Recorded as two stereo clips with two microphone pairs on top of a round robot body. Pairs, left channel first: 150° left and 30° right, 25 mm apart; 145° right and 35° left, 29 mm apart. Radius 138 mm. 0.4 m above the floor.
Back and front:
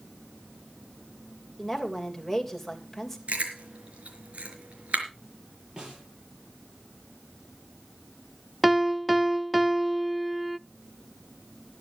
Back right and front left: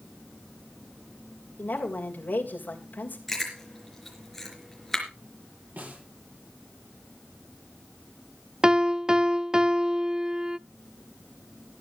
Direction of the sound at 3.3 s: 65° right.